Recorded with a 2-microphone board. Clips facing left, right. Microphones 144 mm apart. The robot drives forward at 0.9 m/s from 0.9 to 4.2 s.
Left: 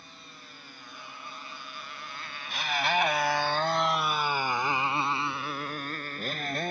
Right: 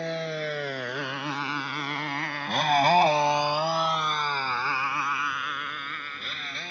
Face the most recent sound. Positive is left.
turn(degrees=45)  # may be behind; listen again after turning